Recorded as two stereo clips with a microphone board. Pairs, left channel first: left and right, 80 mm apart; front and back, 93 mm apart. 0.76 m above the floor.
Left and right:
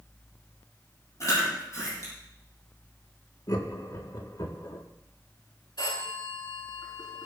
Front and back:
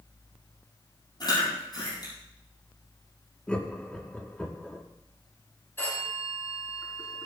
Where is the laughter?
75° left, 1.9 m.